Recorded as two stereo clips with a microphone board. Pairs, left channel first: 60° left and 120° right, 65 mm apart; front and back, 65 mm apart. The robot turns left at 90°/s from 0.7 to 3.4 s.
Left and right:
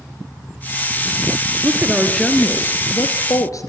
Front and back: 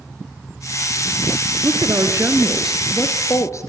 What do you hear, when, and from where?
1.6 s a woman speaking: 165° right, 2 m; by 3.7 s 35° left, 2 m